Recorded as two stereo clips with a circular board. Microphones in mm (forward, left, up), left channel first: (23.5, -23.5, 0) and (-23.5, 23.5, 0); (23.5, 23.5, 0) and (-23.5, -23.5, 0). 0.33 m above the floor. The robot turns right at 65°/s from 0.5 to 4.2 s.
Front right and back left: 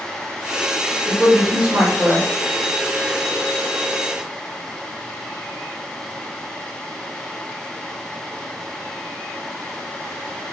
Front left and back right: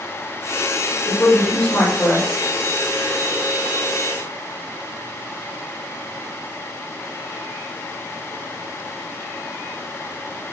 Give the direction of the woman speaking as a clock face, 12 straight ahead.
10 o'clock.